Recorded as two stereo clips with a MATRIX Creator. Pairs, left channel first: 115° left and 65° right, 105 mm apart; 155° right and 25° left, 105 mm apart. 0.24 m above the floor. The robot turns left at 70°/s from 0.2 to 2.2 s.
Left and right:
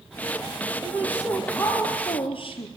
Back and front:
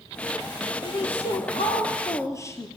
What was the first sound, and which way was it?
A woman speaking, 120° right.